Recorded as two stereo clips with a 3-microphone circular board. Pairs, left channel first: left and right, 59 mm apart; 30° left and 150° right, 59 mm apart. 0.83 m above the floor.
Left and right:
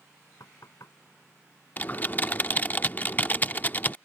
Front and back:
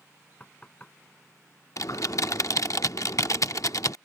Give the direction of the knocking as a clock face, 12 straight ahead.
9 o'clock.